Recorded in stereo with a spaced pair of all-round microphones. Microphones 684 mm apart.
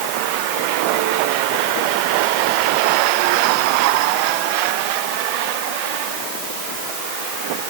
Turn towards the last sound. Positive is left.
No sound to turn to.